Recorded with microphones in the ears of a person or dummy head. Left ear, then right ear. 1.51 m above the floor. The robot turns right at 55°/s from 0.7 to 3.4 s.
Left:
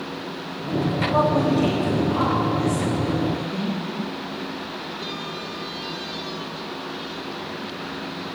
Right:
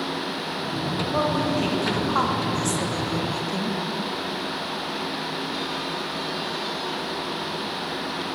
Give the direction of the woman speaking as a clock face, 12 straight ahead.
6 o'clock.